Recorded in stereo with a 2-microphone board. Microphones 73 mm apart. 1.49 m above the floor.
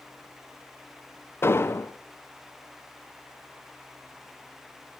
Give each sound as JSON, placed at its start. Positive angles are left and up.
{"t": 1.4, "sound": "an explosion", "side_deg": 35, "distance_m": 0.5}